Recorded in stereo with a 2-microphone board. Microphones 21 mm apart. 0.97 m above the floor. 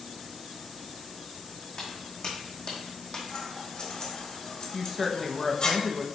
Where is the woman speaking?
5° right (ahead or behind), 1.0 m.